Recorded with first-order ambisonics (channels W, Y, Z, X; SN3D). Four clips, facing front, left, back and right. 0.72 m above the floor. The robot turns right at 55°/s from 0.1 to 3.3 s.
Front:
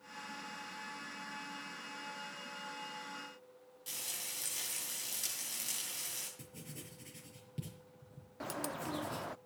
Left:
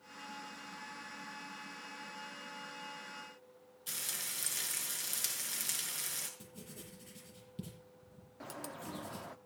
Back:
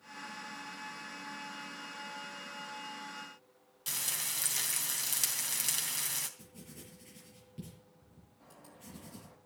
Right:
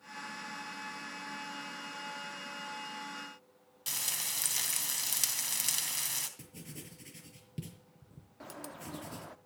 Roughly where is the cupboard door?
I don't hear a cupboard door.